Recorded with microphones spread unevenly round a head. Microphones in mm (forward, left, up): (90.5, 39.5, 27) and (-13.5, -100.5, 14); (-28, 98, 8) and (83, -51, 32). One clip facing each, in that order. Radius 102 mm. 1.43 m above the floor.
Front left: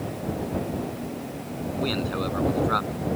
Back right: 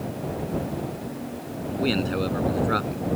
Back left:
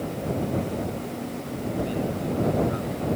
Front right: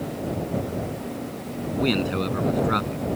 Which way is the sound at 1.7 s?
60° right.